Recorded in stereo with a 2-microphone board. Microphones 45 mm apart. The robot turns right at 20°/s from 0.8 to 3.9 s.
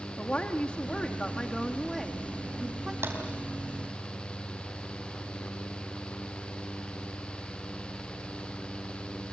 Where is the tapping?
60° right (ahead or behind), 4.5 m.